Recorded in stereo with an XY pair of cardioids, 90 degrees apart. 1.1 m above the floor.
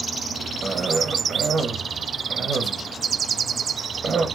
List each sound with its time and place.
0.6 s a cough: 45° right, 1.0 m